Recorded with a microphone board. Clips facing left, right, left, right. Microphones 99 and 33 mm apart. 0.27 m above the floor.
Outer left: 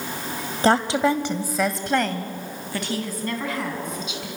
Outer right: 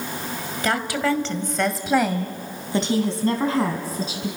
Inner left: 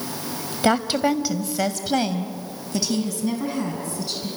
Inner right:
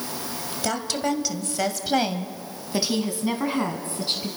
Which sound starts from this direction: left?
A woman speaking, at 0.6 s.